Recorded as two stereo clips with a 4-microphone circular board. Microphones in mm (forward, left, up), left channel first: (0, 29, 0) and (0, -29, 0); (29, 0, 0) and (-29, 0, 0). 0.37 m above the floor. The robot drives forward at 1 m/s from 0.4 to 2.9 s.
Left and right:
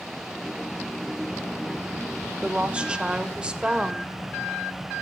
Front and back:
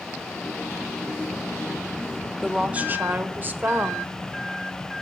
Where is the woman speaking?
95° right, 0.8 m; by 4.1 s 150° right, 0.9 m.